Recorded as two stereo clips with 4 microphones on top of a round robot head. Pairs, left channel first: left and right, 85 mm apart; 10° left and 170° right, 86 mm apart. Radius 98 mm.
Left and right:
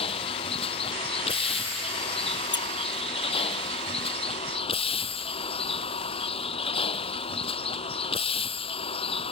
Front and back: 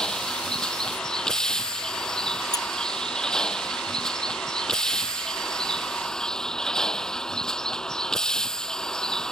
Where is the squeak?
55° left.